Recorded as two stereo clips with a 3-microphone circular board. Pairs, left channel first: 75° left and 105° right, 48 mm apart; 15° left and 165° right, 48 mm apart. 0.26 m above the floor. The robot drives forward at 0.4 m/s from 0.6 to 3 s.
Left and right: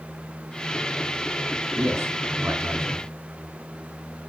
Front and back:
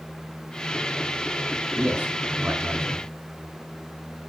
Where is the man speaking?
110° right, 3 m; by 3.0 s 120° right, 3 m.